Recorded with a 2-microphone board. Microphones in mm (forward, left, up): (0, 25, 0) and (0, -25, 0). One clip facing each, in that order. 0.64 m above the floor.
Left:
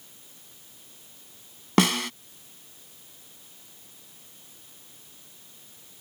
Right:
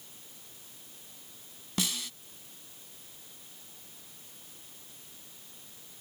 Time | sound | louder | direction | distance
1.8 | a snare drum | left 13 dB | 65° left (ahead or behind) | ?